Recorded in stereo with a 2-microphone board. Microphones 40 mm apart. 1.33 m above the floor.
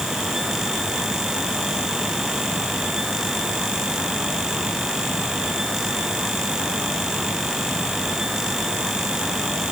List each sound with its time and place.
Only background noise.